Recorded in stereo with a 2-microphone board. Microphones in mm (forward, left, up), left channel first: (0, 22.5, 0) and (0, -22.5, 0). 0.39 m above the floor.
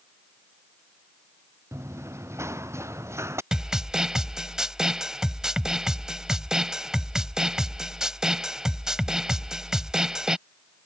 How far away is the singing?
No singing in this recording.